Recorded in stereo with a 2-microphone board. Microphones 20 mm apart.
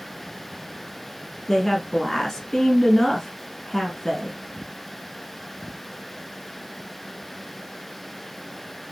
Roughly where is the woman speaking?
Left.